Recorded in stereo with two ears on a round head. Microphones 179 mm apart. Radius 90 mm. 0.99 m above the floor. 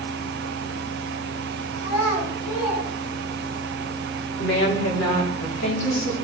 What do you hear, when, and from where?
1.8 s a child speaking: 85° left, 2.5 m
4.4 s a woman speaking: 65° left (ahead or behind), 2.5 m